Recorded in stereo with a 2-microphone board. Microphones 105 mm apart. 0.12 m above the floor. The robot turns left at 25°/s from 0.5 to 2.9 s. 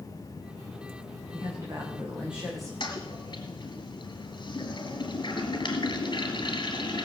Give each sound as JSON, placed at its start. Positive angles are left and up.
{"t": 1.3, "sound": "a woman speaking", "azimuth_deg": -145, "distance_m": 7.5}
{"t": 2.8, "sound": "a toilet flushing", "side_deg": 45, "distance_m": 2.5}